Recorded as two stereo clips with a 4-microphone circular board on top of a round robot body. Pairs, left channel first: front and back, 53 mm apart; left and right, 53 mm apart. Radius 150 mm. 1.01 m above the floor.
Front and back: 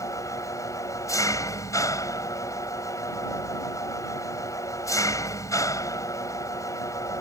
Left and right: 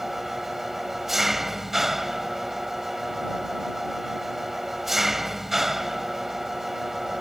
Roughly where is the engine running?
Ahead.